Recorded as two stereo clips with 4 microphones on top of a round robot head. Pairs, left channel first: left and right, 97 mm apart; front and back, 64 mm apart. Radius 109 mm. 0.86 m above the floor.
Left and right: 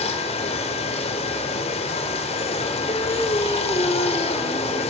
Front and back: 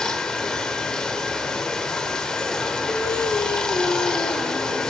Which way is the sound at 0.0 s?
80° left.